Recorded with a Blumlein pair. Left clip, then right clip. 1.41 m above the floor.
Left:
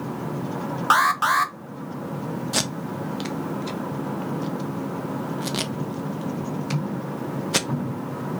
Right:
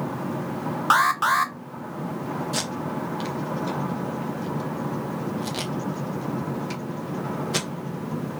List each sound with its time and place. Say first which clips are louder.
0.9 s an alarm: left 1 dB; straight ahead, 0.9 m
2.5 s tape being pulled: left 2 dB; 15° left, 1.0 m